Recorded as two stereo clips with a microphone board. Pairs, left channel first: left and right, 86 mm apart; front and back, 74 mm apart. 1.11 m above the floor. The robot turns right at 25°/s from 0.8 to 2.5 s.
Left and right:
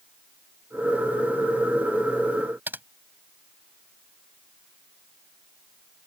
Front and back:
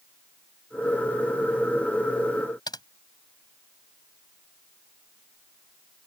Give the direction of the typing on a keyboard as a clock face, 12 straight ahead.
1 o'clock.